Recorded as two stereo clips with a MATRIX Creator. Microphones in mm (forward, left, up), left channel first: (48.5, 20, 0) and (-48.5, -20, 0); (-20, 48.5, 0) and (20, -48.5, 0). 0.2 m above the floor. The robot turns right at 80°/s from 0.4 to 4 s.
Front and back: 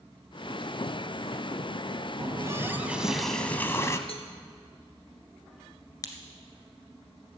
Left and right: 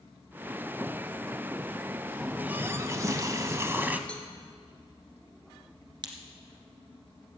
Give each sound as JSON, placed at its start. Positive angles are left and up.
{"t": 2.2, "sound": "a running tap", "azimuth_deg": -150, "distance_m": 0.7}
{"t": 4.1, "sound": "a cowbell", "azimuth_deg": 35, "distance_m": 1.7}
{"t": 6.0, "sound": "a crack", "azimuth_deg": -30, "distance_m": 1.5}